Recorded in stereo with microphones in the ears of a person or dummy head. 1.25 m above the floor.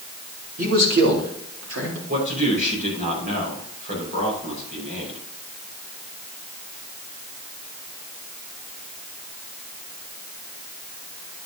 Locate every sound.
0.6 s a man speaking: 45° right (ahead or behind), 2.5 m; by 2.0 s 80° right, 3.5 m
2.1 s a man speaking: 40° right (ahead or behind), 5 m